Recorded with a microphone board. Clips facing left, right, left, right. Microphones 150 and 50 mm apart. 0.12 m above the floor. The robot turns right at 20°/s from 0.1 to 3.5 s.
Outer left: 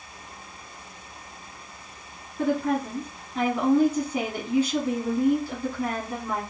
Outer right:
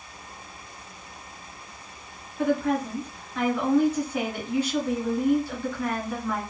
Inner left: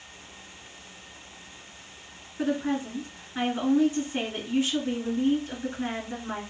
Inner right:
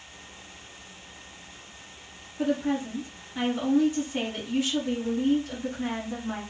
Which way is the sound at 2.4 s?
35° left (ahead or behind).